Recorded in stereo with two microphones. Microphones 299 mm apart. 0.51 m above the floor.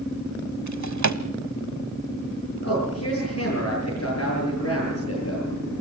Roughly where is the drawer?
Right.